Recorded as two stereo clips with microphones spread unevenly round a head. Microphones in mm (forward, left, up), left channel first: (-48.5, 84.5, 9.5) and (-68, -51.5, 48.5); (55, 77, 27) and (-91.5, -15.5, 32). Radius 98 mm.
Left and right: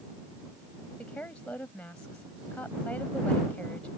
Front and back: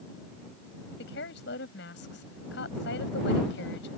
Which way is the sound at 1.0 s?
5° right.